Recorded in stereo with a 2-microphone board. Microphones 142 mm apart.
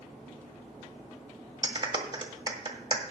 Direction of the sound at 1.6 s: 35° right (ahead or behind).